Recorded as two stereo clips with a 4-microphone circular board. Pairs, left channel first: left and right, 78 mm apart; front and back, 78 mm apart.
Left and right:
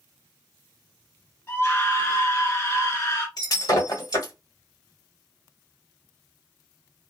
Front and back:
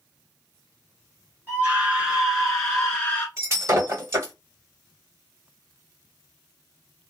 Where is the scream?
130° left, 1.8 m; by 3.3 s 60° left, 1.7 m.